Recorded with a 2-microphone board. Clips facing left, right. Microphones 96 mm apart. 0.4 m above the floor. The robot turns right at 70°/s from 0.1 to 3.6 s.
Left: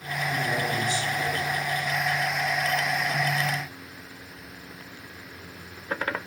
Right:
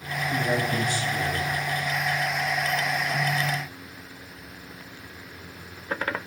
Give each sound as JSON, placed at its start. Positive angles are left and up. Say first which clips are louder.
{"t": 0.3, "sound": "a man speaking", "louder": "right 3 dB", "azimuth_deg": -115, "distance_m": 2.5}